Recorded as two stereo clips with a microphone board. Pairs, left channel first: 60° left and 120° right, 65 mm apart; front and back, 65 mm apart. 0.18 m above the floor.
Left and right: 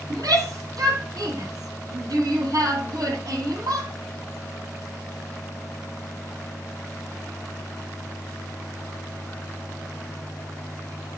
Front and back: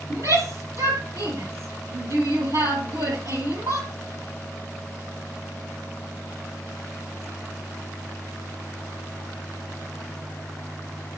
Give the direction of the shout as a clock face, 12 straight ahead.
5 o'clock.